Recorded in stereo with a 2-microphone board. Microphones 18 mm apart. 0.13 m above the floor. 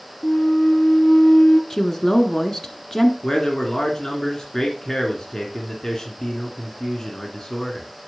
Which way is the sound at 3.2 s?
30° left (ahead or behind).